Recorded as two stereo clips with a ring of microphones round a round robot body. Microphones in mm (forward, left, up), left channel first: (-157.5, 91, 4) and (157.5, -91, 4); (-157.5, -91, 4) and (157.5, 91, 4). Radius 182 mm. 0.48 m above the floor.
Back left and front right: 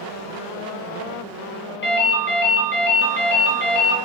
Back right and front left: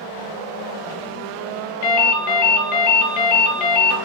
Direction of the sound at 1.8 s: 150° right.